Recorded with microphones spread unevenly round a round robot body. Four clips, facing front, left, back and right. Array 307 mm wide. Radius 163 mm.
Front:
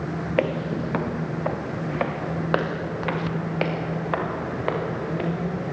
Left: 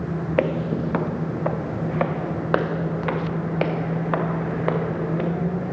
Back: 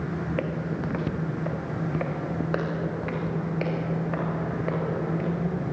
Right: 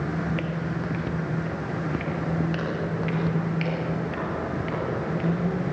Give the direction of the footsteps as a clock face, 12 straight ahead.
11 o'clock.